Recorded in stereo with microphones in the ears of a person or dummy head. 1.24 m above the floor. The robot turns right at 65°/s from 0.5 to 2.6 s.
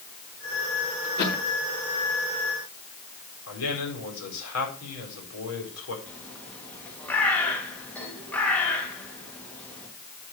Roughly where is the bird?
Centre.